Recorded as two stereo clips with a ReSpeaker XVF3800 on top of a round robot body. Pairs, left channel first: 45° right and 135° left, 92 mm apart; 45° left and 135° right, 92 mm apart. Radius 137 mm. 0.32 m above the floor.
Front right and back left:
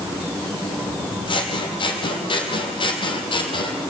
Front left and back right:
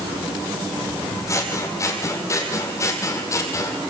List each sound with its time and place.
1.3 s scissors: 15° right, 3.5 m